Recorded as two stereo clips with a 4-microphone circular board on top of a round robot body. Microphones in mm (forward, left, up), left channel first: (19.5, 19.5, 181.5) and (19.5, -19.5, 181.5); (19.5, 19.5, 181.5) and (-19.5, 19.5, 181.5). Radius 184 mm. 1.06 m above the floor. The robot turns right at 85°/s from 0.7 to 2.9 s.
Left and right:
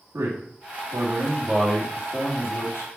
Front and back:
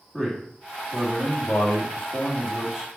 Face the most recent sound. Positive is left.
turn(degrees=110)